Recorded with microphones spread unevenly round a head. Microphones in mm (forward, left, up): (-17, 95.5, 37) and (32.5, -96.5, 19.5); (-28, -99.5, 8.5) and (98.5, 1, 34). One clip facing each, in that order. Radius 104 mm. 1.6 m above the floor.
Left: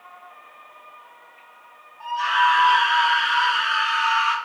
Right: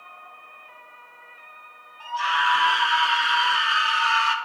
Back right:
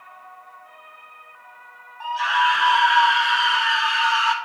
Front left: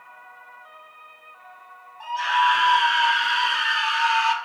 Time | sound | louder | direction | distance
2.0 | a scream | left 4 dB, even | 25° right | 5 m